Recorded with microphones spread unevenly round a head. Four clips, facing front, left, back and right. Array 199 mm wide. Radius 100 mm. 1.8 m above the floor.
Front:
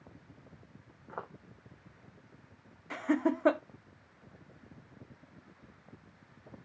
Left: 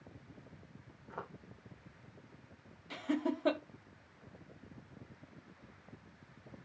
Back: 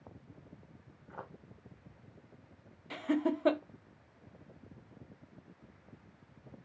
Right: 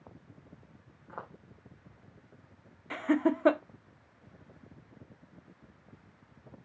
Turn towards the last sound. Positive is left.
turn(degrees=-50)